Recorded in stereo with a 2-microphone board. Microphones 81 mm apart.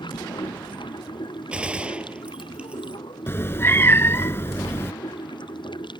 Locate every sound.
0.0 s running water: 75° left (ahead or behind)
1.5 s a gunshot: 15° right (ahead or behind)
3.3 s a cat meowing: 30° left (ahead or behind)